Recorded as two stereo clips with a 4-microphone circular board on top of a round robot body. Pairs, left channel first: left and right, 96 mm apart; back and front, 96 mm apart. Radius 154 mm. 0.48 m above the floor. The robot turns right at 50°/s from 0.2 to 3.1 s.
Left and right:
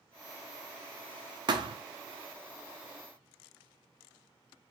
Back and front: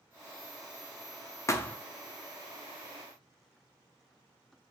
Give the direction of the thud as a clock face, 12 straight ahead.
4 o'clock.